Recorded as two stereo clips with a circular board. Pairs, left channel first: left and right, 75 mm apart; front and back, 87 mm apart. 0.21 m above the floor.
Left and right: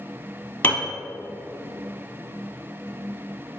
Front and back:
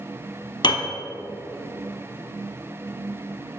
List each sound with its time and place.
0.6 s a piano: 25° left, 1.4 m